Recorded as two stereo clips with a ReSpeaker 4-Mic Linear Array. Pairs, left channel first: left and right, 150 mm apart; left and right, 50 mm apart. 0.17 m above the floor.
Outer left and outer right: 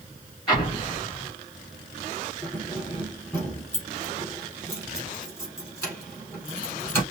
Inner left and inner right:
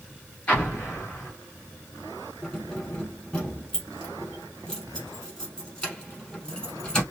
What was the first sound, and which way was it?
An explosion, 30° left (ahead or behind).